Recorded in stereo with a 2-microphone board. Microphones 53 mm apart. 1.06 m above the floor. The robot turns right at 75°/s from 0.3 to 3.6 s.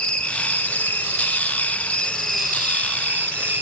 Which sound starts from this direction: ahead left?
An insect, at 0.0 s.